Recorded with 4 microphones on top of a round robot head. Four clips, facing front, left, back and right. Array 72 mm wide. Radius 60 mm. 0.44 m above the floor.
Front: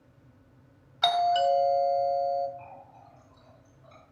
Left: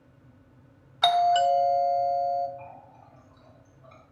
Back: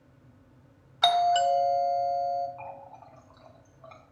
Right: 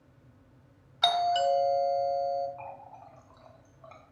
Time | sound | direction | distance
1.0 | a doorbell | 115° left | 1.7 m
2.6 | a running tap | 145° right | 2.5 m